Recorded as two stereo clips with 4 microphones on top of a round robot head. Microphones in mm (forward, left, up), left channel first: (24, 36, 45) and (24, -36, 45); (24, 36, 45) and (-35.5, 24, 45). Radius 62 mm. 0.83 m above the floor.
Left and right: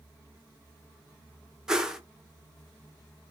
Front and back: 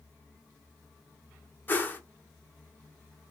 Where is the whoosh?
15° right, 0.8 m.